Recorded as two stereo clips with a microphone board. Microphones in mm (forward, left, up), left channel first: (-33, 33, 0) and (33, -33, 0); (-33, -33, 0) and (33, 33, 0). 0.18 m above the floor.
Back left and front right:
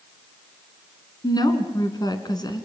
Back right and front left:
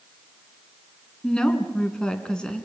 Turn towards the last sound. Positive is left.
turn(degrees=145)